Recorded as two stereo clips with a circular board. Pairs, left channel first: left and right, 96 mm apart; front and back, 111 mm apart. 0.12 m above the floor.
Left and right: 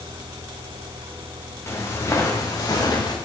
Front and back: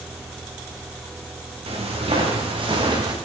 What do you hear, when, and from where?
1.7 s footsteps: 150° left, 3 m; by 3.1 s 135° left, 2.5 m